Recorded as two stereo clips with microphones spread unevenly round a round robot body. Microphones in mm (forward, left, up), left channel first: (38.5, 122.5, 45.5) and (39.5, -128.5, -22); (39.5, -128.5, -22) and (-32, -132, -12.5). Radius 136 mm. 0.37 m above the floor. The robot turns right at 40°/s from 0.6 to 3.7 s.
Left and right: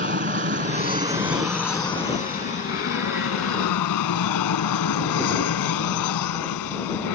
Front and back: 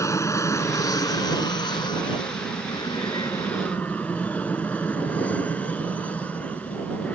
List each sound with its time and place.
0.0 s an aircraft: 40° right; by 7.1 s 85° left